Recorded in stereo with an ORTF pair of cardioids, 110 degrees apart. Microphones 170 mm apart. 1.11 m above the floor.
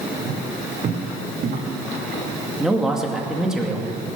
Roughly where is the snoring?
No snoring in this recording.